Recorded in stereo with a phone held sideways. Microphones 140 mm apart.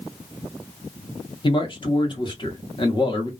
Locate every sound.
1.4 s a man speaking: 35° left (ahead or behind), 0.8 m